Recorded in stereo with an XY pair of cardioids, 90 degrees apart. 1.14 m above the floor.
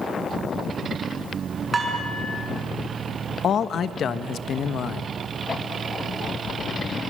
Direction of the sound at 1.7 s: 30° right.